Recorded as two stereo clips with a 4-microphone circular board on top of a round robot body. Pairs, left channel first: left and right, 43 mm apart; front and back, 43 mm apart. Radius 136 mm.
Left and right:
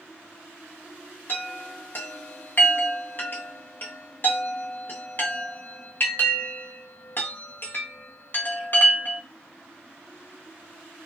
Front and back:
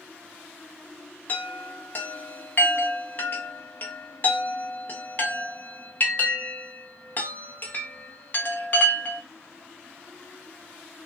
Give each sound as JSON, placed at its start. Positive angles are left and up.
{"t": 1.3, "sound": "a chime", "azimuth_deg": 45, "distance_m": 0.8}